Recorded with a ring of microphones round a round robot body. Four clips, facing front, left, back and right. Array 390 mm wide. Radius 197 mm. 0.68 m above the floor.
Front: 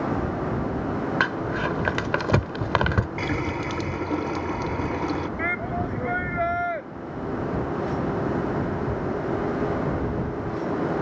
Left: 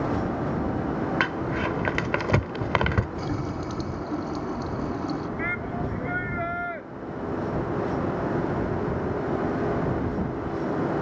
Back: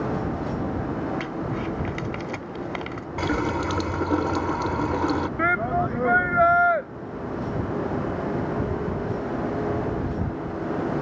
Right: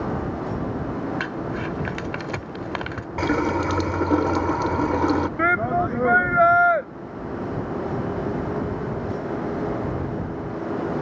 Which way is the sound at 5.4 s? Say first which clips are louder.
Right 9 dB, back 5 dB; 110° right.